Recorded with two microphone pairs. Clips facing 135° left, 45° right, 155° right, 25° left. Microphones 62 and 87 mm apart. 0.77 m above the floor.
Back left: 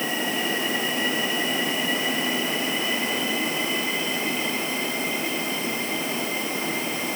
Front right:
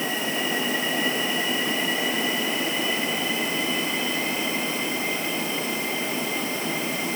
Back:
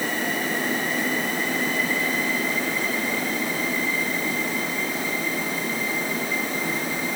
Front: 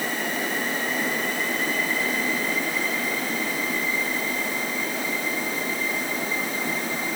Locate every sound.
Only background noise.